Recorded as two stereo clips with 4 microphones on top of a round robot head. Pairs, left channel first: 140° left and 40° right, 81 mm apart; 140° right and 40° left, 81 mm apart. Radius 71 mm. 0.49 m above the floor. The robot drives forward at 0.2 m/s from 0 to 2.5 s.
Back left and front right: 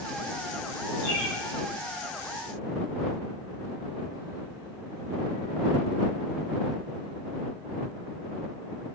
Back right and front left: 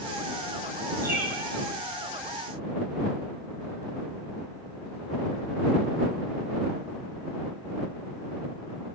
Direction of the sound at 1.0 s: 100° left.